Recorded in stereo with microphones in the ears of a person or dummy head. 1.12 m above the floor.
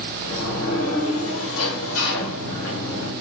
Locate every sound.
0.2 s a sliding door: 80° left, 1.4 m